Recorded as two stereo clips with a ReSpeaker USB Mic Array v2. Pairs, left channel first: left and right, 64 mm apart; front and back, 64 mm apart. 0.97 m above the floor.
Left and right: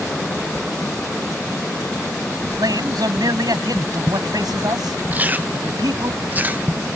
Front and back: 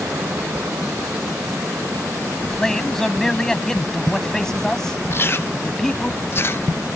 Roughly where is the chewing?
Ahead right.